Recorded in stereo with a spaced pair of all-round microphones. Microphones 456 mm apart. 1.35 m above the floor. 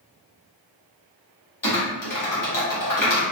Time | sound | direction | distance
1.6 | typing on a keyboard | 45° left (ahead or behind) | 0.9 m